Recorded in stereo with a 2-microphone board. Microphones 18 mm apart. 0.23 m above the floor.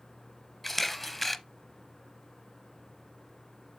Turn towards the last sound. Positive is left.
turn(degrees=10)  # may be behind; listen again after turning